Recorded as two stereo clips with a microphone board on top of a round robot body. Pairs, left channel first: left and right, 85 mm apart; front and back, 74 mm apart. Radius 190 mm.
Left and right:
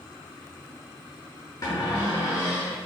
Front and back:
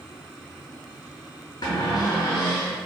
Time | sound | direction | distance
1.6 | a cupboard door | 45° left | 0.6 m